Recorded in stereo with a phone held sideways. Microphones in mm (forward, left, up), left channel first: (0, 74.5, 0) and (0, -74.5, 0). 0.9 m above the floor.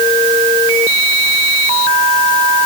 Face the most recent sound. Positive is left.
No sound to turn to.